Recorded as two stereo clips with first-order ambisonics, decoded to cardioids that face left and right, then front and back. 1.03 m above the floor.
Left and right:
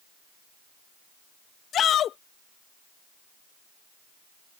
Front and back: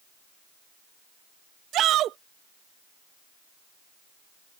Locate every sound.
1.7 s a shout: 140° left